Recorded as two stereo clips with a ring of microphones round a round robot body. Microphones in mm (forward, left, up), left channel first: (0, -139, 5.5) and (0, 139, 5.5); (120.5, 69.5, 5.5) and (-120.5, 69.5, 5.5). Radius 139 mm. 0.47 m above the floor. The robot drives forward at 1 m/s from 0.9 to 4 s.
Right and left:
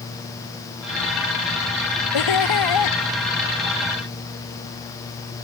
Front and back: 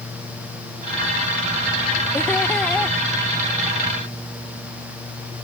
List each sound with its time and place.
2.1 s laughter: 85° right; by 3.0 s 90° right